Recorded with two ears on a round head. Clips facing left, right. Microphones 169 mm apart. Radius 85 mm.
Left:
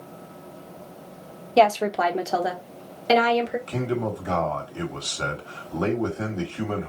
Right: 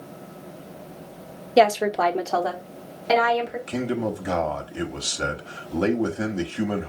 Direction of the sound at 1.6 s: 15° right (ahead or behind).